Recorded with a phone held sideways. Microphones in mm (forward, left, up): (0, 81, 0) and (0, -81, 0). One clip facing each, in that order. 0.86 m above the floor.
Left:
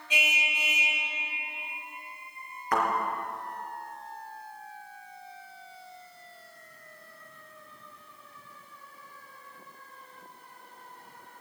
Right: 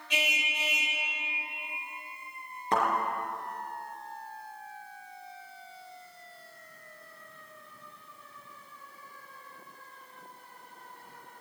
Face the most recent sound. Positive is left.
turn(degrees=-25)  # may be behind; listen again after turning